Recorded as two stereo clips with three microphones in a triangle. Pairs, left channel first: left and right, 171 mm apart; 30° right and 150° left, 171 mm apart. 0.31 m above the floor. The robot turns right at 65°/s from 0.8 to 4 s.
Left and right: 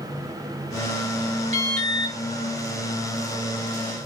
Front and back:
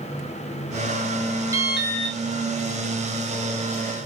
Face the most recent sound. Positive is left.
turn(degrees=20)